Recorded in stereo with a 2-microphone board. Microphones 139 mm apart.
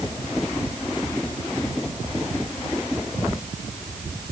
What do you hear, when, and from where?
Only background noise.